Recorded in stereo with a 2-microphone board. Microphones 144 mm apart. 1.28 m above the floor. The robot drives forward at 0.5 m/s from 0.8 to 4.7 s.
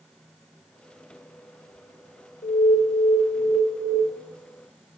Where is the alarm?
70° left (ahead or behind), 1.5 m; by 4.0 s 45° left (ahead or behind), 2.0 m.